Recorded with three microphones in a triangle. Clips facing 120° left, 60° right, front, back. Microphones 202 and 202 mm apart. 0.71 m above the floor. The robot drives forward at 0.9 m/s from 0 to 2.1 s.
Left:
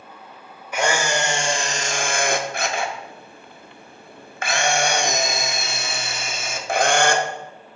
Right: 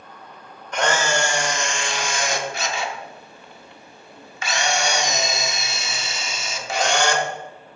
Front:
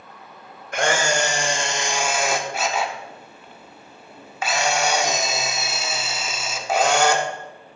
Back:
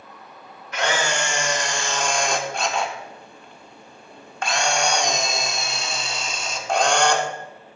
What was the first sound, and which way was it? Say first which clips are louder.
A camera shutter: even, front 3 dB; 40° left.